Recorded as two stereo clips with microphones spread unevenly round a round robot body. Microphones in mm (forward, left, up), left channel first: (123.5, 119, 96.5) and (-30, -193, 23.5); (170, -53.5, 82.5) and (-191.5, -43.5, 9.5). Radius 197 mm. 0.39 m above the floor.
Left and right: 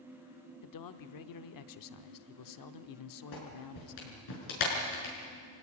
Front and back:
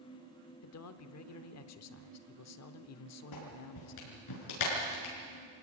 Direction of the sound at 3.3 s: 40° left.